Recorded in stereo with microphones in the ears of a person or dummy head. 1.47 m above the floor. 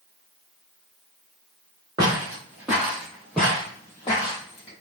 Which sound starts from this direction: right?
Footsteps, at 2.0 s.